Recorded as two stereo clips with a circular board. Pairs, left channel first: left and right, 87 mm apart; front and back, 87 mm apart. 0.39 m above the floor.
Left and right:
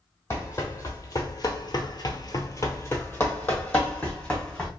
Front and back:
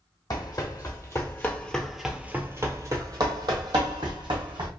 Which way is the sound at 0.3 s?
35° left.